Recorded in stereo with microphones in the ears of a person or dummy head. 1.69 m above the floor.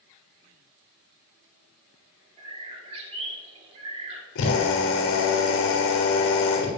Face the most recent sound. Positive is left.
turn(degrees=70)  # may be behind; listen again after turning